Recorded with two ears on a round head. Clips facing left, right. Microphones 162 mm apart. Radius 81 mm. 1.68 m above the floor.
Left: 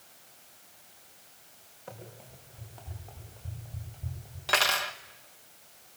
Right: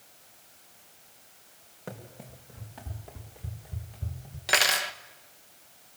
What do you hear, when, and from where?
1.9 s running footsteps: 70° right (ahead or behind), 5.5 m
4.5 s cutlery clinking: 20° right (ahead or behind), 0.8 m